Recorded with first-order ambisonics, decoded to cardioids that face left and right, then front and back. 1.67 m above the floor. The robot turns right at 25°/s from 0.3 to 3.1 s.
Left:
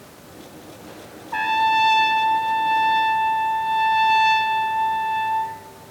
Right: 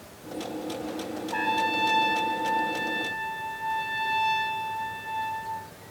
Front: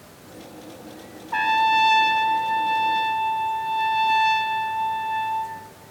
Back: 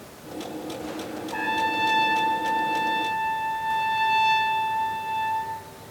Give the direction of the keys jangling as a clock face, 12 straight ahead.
No keys jangling in this recording.